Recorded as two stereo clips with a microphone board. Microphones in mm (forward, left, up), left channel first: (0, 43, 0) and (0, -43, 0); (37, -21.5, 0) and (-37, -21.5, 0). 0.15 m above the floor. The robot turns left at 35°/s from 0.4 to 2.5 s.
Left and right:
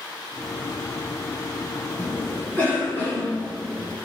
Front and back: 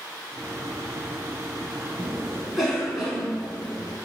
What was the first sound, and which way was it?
A cough, 110° left.